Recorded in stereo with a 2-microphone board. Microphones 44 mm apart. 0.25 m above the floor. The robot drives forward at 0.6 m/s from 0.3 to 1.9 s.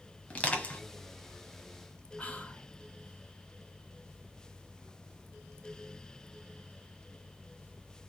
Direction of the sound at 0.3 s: 35° left (ahead or behind).